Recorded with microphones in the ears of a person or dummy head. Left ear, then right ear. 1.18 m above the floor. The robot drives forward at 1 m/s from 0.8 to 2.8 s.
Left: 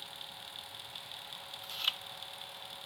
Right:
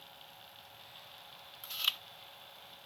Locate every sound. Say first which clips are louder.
1.6 s chewing: right 1 dB; 10° right (ahead or behind)